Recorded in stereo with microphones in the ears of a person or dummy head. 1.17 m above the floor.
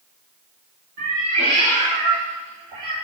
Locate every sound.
1.0 s a cat meowing: 45° right (ahead or behind), 2.5 m; by 2.9 s 20° right (ahead or behind), 4.5 m